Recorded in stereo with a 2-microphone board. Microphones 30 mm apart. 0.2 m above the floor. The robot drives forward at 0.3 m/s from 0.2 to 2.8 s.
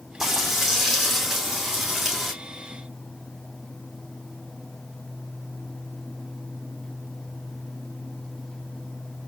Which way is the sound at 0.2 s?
10° right (ahead or behind).